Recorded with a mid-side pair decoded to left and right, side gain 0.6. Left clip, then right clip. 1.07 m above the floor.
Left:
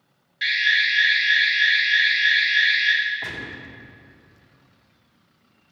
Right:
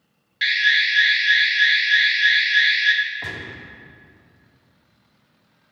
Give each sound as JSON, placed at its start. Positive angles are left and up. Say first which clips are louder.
{"t": 0.4, "sound": "an alarm", "louder": "right 2 dB", "azimuth_deg": -35, "distance_m": 1.1}
{"t": 3.2, "sound": "a gunshot", "louder": "even", "azimuth_deg": -10, "distance_m": 1.3}